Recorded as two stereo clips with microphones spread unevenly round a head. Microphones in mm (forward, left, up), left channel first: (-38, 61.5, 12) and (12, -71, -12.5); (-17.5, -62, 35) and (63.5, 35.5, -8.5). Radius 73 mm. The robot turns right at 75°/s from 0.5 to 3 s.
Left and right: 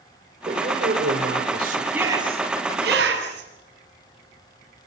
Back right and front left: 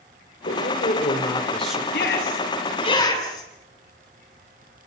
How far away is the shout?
About 8 m.